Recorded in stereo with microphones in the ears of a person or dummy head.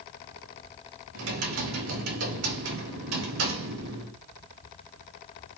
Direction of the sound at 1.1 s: 75° right (ahead or behind).